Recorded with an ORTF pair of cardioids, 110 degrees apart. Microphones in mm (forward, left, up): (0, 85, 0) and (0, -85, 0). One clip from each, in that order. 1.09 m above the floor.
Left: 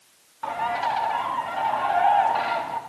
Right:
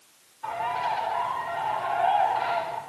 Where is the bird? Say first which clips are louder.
Left 3 dB; 70° left, 2.5 m.